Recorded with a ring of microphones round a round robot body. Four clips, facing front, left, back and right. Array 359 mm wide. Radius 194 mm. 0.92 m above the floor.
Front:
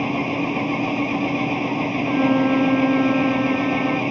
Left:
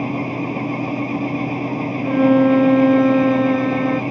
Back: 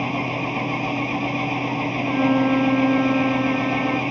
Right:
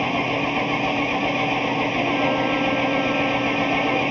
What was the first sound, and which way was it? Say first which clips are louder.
An engine running: even, front 2 dB; 90° right.